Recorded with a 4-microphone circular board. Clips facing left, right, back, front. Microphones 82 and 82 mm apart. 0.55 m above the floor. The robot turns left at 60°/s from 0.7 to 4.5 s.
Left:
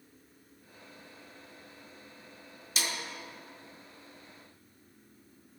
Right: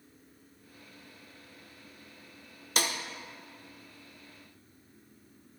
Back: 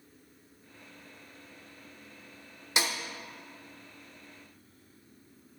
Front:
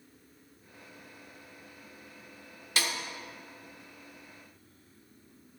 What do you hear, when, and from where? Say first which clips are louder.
2.8 s a snare drum: right 4 dB, back 1 dB; 110° right, 0.7 m; by 2.9 s 125° right, 0.7 m